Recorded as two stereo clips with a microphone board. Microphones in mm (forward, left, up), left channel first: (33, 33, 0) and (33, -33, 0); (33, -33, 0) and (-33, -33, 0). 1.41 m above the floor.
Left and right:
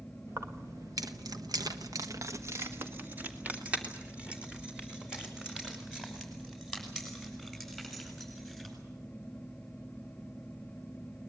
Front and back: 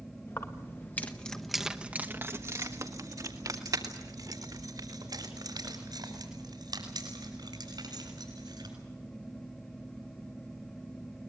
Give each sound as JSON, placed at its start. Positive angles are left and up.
{"t": 0.3, "sound": "keys jangling", "azimuth_deg": -45, "distance_m": 1.8}